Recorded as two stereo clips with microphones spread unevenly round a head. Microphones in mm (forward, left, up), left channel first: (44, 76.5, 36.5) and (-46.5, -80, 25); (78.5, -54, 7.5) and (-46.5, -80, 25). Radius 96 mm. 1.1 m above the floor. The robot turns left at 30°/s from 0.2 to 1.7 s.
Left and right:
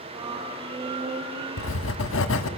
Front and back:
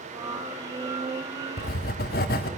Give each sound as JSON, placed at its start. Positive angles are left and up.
{"t": 1.6, "sound": "writing", "azimuth_deg": 45, "distance_m": 1.5}